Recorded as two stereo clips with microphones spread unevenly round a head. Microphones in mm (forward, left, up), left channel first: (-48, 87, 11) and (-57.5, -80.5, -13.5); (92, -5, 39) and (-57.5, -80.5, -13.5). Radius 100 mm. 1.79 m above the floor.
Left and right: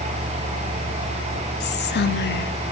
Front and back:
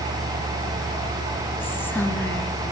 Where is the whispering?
105° left, 0.9 m.